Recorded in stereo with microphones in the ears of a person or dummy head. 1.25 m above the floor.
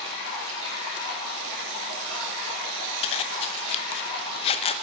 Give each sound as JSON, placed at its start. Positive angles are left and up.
{"t": 0.0, "sound": "running water", "side_deg": -75, "distance_m": 5.0}
{"t": 3.0, "sound": "a zipper", "side_deg": 35, "distance_m": 0.5}